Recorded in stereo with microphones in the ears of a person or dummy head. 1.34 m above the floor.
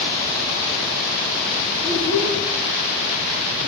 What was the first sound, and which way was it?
A child speaking, 25° left (ahead or behind).